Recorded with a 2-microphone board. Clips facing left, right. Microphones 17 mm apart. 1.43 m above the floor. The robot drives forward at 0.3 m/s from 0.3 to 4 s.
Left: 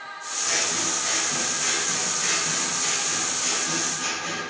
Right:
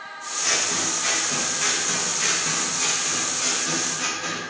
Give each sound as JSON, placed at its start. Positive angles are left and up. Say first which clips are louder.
{"t": 0.4, "sound": "scissors", "louder": "right 2 dB", "side_deg": -20, "distance_m": 1.5}